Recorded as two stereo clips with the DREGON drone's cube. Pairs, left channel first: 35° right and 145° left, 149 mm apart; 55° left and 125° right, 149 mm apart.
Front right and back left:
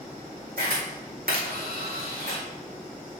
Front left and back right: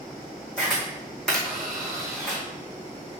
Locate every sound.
0.6 s a camera shutter: 140° left, 2 m